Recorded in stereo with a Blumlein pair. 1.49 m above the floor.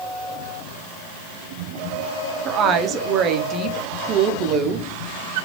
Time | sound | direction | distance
2.5 | a woman speaking | 30° right | 0.6 m